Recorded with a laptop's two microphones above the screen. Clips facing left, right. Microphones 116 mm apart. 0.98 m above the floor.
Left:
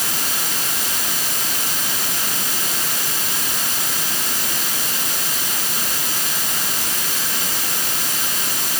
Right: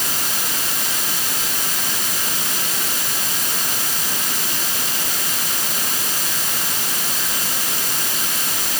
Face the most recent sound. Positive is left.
No sound to turn to.